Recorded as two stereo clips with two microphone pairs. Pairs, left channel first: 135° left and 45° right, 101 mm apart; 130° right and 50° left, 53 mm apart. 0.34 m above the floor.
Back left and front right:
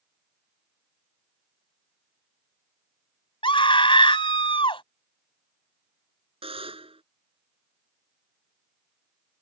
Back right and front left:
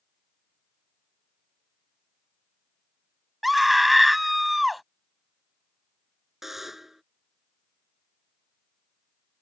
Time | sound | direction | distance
3.4 | a scream | 140° left | ?
6.4 | a buzzer | 35° right | ?